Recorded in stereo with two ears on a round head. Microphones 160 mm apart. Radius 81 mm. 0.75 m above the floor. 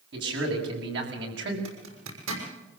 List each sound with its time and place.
0.1 s a man speaking: 65° right (ahead or behind), 7 m; by 1.6 s 70° right (ahead or behind), 5.5 m
1.6 s a zipper: 80° right, 6 m